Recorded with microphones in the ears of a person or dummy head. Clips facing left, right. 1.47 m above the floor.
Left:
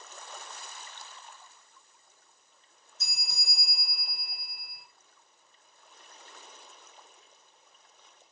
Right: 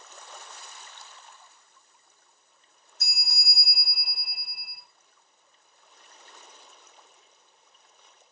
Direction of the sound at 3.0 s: 20° left (ahead or behind).